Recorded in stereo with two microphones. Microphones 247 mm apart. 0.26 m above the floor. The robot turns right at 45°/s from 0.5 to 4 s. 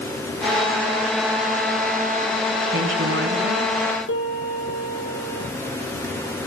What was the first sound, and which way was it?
A woman speaking, 115° right.